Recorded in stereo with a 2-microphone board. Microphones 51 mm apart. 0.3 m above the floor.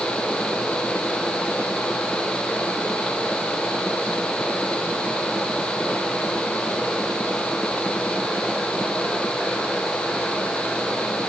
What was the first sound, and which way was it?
Only background noise.